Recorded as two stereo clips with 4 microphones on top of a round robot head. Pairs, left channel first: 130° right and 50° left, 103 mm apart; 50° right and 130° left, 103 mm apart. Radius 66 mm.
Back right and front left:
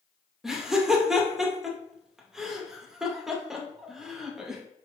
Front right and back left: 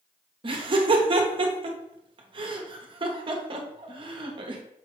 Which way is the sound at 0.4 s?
135° left.